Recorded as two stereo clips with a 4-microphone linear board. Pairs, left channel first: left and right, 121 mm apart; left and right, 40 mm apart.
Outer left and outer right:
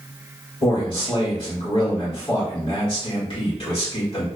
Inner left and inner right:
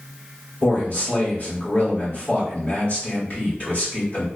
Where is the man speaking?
50° left (ahead or behind), 1.8 m.